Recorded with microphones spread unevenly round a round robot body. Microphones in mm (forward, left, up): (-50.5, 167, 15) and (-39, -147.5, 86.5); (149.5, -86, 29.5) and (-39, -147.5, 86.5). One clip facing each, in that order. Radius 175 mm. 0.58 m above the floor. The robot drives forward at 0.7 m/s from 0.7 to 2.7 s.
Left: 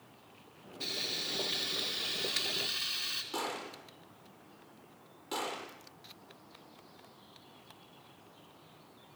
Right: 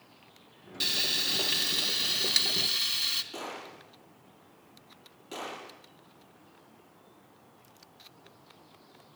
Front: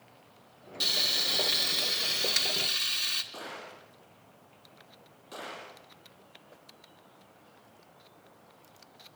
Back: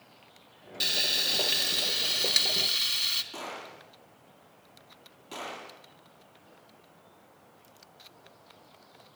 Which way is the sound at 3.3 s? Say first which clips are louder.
Left 2 dB, back 2 dB; 165° left.